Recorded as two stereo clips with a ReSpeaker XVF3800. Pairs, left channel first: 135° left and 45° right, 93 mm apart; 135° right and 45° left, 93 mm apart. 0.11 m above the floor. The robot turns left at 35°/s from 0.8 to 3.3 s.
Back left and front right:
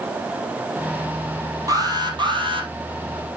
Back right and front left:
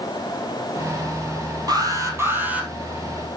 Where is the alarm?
Straight ahead, 2.5 m; by 2.7 s 35° right, 2.5 m.